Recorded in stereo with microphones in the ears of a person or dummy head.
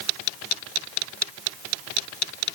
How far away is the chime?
I don't hear a chime.